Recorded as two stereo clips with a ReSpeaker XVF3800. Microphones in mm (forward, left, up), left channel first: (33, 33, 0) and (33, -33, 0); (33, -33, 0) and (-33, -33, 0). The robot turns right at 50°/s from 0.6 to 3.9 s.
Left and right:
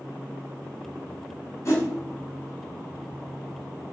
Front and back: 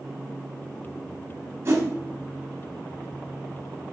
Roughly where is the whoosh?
Behind left.